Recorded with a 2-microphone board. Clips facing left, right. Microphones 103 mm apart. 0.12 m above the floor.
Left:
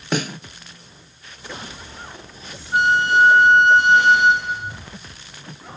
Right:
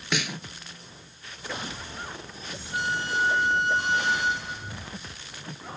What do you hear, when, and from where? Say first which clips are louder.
0.1 s a snare drum: left 7 dB; 40° left (ahead or behind)
2.7 s a flute: left 12 dB; 65° left (ahead or behind)